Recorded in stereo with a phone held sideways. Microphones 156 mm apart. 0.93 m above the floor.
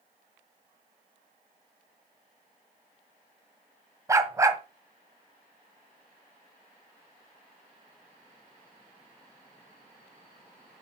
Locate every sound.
4.1 s a dog barking: 20° right (ahead or behind), 1.5 m